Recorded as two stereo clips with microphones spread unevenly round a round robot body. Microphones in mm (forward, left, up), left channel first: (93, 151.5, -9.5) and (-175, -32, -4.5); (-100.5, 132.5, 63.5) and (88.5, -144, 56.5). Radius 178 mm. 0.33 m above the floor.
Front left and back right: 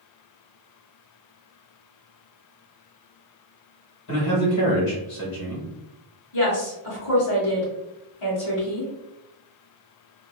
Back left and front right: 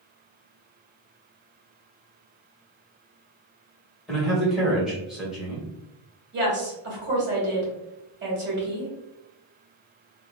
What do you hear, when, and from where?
4.1 s a man speaking: 30° left, 1.6 m
6.3 s a woman speaking: straight ahead, 1.7 m